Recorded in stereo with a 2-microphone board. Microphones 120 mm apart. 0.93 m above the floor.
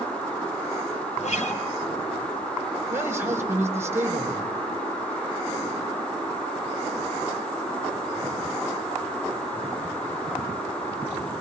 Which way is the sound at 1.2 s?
75° left (ahead or behind).